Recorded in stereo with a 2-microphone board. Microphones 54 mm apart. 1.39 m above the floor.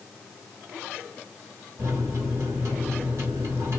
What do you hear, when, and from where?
1.8 s a microwave: 65° right (ahead or behind), 1.8 m